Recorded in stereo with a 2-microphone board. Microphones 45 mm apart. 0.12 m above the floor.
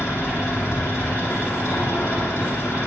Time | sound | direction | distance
0.0 | an engine running | 70° left (ahead or behind) | 5.5 m